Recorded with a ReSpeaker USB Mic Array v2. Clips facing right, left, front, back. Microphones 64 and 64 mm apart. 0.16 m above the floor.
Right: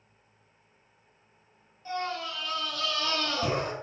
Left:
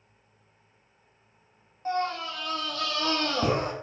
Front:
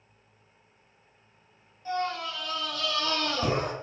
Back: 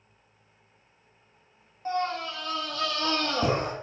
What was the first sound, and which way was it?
A scream, 135° left.